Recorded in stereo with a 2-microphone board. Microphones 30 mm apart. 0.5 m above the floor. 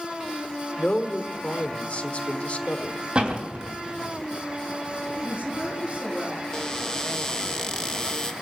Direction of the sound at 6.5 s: 25° left (ahead or behind).